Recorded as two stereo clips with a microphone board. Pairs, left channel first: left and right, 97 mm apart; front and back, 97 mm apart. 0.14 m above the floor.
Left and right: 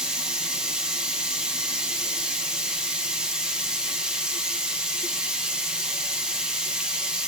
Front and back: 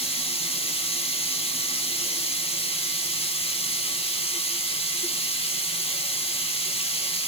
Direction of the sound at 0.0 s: 10° right.